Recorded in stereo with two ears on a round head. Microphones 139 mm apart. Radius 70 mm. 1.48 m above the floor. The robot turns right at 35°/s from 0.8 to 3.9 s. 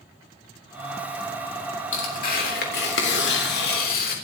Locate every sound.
1.9 s tearing paper: 45° left, 3.5 m; by 4.2 s 115° left, 3.5 m